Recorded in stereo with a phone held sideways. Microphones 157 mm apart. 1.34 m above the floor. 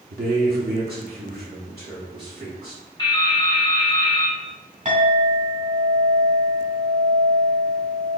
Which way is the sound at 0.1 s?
70° right (ahead or behind).